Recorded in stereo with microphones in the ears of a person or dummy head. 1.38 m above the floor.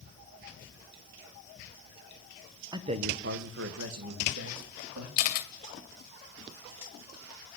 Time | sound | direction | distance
2.7 | a man speaking | 20° right (ahead or behind) | 1.1 m
5.2 | a camera shutter | 50° left (ahead or behind) | 2 m